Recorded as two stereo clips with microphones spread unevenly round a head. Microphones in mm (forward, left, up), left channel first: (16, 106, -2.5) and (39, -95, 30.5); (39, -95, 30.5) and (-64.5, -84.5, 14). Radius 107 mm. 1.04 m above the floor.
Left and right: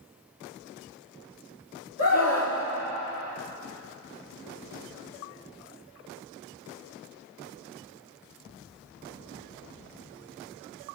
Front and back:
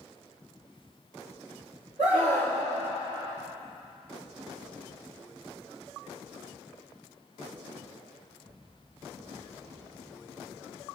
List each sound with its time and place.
2.0 s a scream: 115° left, 3 m